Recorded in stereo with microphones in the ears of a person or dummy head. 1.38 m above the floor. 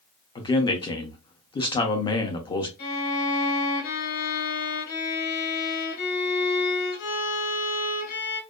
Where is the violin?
45° left (ahead or behind), 1.1 m.